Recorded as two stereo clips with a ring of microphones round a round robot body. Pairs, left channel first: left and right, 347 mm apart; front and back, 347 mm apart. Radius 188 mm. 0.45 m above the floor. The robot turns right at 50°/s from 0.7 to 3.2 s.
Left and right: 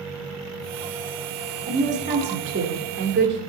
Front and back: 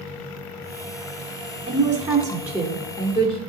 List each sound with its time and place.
1.7 s a woman speaking: 140° right, 1.0 m; by 3.4 s 60° right, 1.0 m